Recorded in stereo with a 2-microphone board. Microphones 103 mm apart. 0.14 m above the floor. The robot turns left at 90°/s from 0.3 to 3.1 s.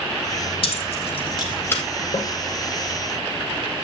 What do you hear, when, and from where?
0.6 s keys jangling: 55° left (ahead or behind), 3 m; by 1.8 s 15° left (ahead or behind), 3 m
2.1 s a snare drum: 70° left (ahead or behind), 8.5 m; by 2.3 s 55° left (ahead or behind), 8.5 m